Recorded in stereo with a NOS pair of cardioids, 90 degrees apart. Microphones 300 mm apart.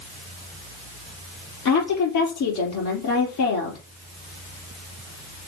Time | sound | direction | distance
1.6 | a woman speaking | 70° left | 4 m